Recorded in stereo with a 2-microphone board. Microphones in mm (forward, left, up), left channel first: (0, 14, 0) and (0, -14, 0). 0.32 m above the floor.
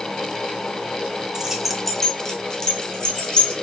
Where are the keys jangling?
25° right (ahead or behind), 0.5 m; by 3.5 s 30° left (ahead or behind), 1.8 m.